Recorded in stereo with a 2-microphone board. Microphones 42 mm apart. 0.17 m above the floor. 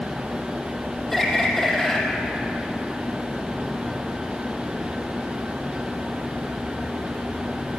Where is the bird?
5° left (ahead or behind), 4 m.